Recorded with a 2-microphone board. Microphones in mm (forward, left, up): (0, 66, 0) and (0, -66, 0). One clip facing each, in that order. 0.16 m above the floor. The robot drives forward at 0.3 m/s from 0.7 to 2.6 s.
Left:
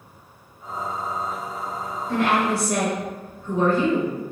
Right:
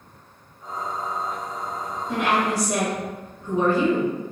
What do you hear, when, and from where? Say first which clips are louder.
2.1 s a woman speaking: left 2 dB; 20° right (ahead or behind), 1.1 m